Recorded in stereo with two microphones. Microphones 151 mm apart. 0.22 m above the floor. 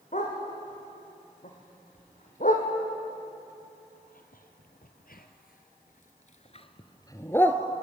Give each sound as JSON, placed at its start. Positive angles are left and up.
{"t": 0.1, "sound": "a dog barking", "side_deg": 55, "distance_m": 6.0}